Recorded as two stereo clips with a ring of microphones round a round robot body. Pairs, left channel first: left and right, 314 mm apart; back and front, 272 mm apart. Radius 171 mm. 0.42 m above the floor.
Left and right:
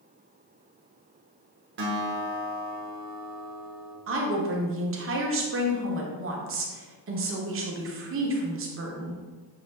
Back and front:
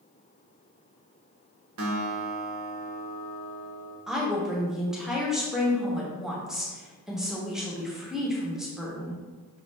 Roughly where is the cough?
No cough in this recording.